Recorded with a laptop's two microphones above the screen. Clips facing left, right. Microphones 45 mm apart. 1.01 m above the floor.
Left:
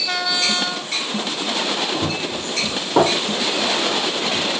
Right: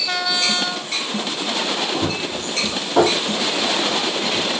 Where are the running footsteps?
10° left (ahead or behind), 1.2 m; by 4.5 s 50° left (ahead or behind), 2 m.